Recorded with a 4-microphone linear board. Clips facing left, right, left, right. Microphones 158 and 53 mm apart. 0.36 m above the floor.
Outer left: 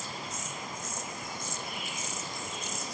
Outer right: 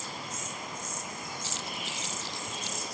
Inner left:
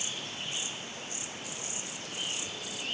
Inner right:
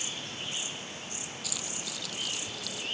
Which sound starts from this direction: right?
Keys jangling, at 1.4 s.